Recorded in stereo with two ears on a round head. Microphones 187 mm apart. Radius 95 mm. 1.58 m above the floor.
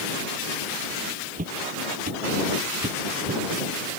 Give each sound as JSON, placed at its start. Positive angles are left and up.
{"t": 1.4, "sound": "footsteps", "side_deg": -40}